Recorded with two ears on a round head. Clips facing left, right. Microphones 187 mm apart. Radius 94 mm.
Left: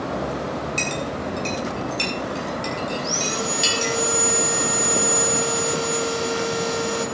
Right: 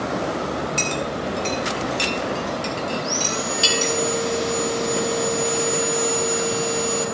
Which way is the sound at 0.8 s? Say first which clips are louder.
Right 2 dB; 5° right (ahead or behind).